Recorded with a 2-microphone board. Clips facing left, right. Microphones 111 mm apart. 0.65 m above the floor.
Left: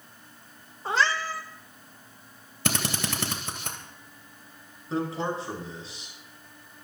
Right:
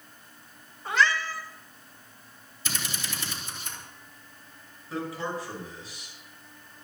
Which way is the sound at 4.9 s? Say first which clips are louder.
Left 4 dB; 25° left (ahead or behind).